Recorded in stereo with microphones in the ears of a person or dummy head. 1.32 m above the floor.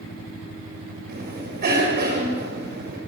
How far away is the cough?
About 7 m.